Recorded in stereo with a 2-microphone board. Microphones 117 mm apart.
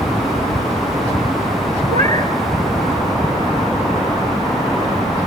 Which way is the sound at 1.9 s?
70° right (ahead or behind).